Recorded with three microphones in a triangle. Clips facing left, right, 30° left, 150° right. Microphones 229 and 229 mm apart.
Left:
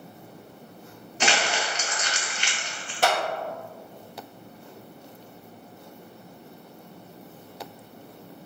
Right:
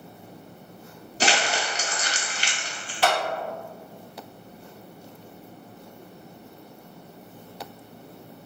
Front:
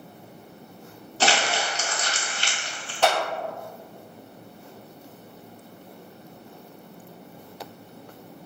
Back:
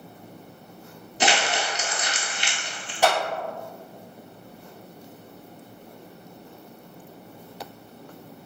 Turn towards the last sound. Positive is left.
turn(degrees=130)